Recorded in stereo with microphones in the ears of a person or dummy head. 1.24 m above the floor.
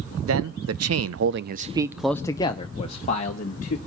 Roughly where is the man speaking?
Right.